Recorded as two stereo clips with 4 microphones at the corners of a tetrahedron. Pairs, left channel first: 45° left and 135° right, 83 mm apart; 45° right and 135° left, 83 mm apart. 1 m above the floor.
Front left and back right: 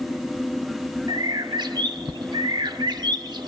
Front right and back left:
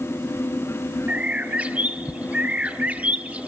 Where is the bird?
155° right, 0.9 m.